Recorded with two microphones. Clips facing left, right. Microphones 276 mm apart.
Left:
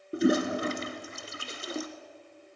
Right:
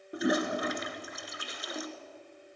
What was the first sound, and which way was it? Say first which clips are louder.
A toilet flushing: left 5 dB; 30° left (ahead or behind).